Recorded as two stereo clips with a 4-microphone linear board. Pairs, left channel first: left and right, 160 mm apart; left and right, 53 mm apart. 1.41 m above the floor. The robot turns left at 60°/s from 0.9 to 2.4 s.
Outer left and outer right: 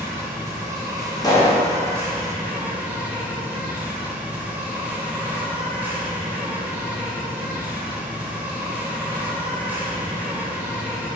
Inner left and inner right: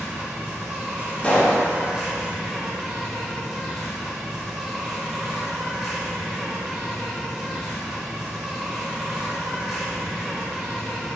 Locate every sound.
0.0 s an insect: 20° right (ahead or behind), 0.8 m; by 11.2 s 10° right (ahead or behind), 0.8 m
1.2 s a pop: 25° left (ahead or behind), 0.7 m; by 1.6 s 5° left (ahead or behind), 0.7 m